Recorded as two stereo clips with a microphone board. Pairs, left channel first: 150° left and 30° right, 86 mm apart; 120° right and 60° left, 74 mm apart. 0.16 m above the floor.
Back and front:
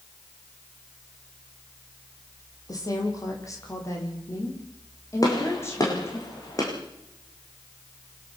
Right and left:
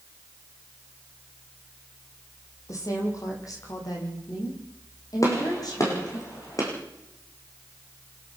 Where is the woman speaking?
165° right, 6 m; by 6.2 s 150° right, 9 m.